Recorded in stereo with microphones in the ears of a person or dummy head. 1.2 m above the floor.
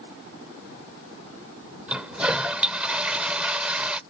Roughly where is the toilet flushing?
Centre.